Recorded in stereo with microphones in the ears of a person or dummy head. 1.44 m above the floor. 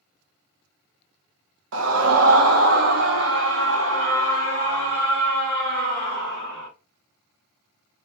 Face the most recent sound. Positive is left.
turn(degrees=-55)  # may be behind; listen again after turning